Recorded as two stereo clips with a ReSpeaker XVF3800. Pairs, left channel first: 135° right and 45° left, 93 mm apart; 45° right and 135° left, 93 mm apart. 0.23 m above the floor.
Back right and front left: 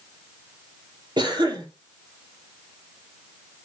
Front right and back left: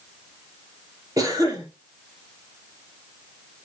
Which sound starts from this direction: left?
A cough, at 1.2 s.